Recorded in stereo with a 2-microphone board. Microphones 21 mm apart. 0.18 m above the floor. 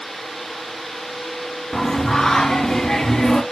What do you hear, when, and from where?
1.7 s singing: 25° left (ahead or behind), 0.5 m